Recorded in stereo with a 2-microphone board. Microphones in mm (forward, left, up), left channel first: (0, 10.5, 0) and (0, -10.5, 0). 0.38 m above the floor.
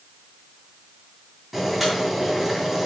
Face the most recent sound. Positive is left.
turn(degrees=0)  # may be behind; listen again after turning